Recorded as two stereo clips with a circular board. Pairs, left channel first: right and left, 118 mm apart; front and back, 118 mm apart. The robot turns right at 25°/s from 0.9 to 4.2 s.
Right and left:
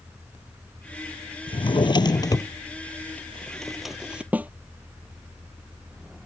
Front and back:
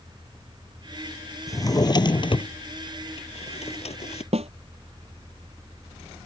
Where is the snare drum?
165° left.